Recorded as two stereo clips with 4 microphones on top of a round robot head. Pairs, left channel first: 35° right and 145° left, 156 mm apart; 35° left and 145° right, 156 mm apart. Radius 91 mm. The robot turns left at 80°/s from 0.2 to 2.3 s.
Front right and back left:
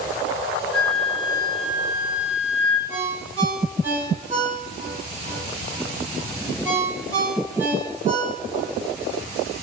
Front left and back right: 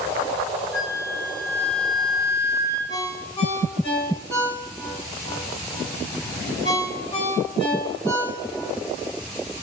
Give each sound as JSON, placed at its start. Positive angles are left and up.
{"t": 0.7, "sound": "a flute", "azimuth_deg": -50, "distance_m": 0.5}
{"t": 2.9, "sound": "a ringtone", "azimuth_deg": 85, "distance_m": 1.2}